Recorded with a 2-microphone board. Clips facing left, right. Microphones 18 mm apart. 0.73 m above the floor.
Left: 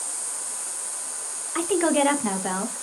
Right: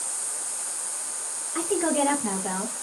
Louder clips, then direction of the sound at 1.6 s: Left 3 dB; 30° left (ahead or behind).